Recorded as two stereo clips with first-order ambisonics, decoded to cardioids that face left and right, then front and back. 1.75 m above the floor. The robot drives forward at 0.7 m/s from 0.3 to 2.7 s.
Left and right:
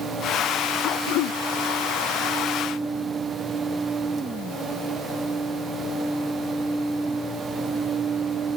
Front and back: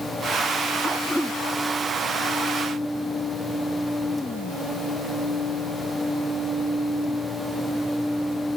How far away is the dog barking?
I don't hear a dog barking.